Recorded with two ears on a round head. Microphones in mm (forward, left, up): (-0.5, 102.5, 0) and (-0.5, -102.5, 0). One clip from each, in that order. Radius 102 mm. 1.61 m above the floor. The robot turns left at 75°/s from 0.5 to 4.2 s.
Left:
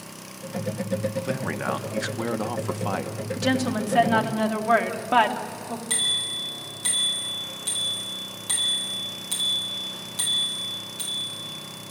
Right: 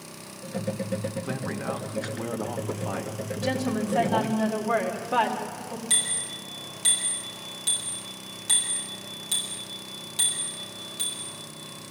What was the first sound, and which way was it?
A man speaking, 165° left.